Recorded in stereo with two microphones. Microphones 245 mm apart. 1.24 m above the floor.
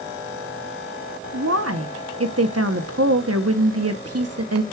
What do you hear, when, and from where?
1.3 s a woman speaking: 75° right (ahead or behind), 0.8 m